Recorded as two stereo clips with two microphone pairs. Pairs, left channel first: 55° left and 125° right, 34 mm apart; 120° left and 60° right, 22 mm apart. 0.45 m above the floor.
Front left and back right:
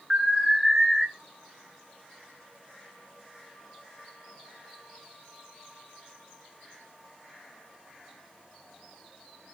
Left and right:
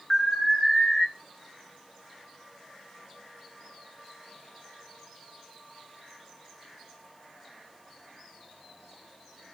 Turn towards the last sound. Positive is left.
turn(degrees=170)